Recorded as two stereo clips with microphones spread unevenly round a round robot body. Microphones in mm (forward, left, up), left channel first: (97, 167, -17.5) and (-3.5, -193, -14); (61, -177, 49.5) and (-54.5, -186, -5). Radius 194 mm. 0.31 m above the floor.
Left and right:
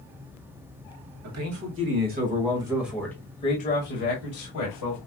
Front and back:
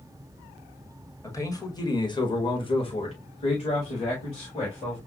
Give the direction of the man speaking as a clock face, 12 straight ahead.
3 o'clock.